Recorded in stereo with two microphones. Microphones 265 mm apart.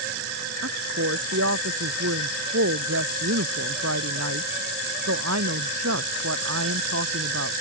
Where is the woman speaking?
65° right (ahead or behind).